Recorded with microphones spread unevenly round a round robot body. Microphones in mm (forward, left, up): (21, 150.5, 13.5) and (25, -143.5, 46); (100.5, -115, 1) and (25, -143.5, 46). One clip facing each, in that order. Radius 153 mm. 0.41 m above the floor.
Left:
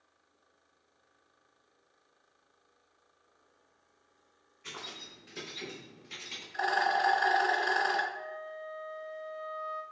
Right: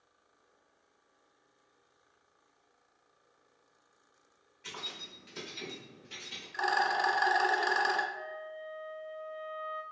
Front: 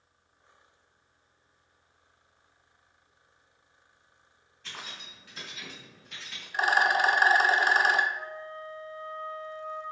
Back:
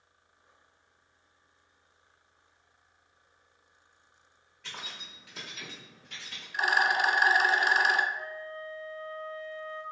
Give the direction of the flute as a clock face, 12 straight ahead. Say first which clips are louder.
Left 1 dB, even; 10 o'clock.